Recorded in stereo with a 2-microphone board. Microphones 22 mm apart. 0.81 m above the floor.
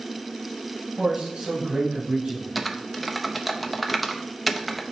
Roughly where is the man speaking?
Right.